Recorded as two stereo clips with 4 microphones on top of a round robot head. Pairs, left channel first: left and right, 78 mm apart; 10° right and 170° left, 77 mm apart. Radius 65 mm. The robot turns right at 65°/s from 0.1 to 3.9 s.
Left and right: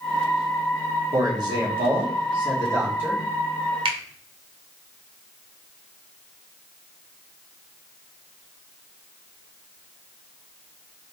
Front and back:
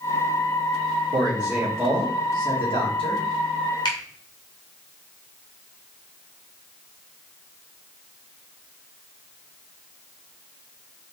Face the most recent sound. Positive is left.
turn(degrees=-55)